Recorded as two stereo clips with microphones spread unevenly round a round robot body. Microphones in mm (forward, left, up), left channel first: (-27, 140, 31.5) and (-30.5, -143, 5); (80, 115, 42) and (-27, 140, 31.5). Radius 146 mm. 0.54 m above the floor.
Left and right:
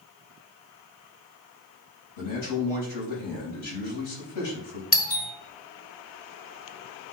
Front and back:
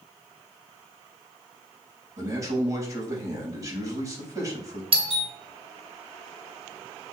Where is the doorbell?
150° left, 2 m.